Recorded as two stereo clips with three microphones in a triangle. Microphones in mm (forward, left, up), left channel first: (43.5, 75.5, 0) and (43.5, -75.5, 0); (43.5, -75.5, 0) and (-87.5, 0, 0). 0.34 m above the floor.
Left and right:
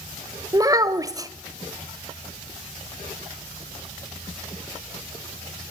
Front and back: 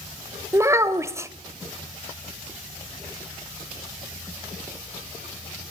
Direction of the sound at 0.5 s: 145° right.